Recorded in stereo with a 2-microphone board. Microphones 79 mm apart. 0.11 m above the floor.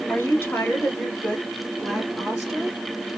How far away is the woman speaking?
About 1.4 m.